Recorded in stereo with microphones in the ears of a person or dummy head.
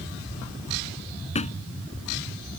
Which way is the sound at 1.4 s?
30° left (ahead or behind).